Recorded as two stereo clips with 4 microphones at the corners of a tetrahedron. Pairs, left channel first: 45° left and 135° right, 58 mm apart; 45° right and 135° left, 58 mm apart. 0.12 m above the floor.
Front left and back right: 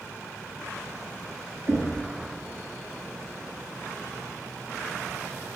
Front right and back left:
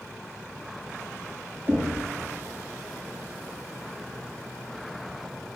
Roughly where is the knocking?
Behind.